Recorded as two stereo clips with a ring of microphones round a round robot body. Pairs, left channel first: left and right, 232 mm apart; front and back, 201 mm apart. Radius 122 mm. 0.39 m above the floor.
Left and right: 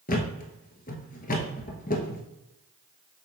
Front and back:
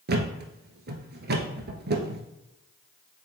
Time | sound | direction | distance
0.1 | a thud | 145° left | 1.1 m